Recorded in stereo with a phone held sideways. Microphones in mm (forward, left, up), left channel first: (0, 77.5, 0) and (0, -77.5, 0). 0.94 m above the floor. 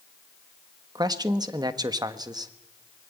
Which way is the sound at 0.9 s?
25° right (ahead or behind).